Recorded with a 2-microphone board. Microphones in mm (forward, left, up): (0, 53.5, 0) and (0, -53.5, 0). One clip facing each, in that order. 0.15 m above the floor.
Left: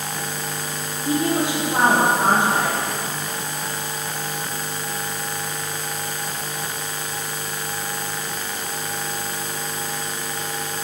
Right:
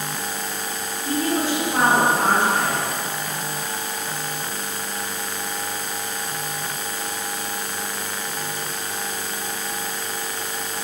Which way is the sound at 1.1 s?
20° left (ahead or behind).